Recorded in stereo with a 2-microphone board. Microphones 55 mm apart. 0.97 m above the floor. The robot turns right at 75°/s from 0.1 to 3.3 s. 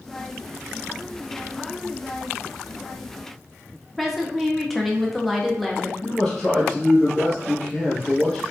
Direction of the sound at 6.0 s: 10° left (ahead or behind).